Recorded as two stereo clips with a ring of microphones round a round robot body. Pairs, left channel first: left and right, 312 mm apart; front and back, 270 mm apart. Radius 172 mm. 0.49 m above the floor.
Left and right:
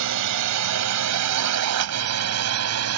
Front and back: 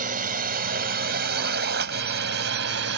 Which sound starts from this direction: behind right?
A drone, at 0.0 s.